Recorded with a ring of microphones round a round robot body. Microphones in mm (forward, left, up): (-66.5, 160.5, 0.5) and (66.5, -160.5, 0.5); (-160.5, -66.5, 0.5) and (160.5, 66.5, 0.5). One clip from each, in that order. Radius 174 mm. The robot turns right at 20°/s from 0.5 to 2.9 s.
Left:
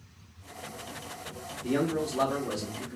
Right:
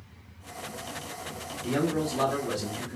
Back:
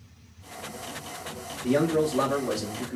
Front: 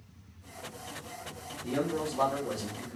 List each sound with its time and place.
1.6 s a man speaking: 160° left, 0.8 m; by 3.0 s 175° right, 0.8 m